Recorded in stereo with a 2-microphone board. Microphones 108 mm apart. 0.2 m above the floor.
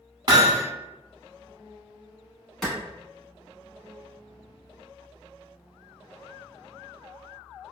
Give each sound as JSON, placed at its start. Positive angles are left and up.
{"t": 0.3, "sound": "hammering", "side_deg": -40, "distance_m": 0.8}
{"t": 2.6, "sound": "a clap", "side_deg": 0, "distance_m": 1.3}